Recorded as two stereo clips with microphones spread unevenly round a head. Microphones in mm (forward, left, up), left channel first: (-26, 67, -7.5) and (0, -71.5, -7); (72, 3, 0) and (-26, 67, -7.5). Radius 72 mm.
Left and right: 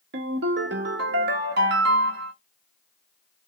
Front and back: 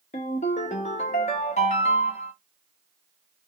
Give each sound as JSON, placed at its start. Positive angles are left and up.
{"t": 0.1, "sound": "a ringtone", "azimuth_deg": -80, "distance_m": 0.9}